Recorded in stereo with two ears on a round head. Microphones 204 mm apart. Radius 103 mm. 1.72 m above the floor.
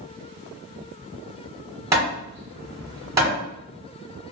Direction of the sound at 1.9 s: 15° right (ahead or behind).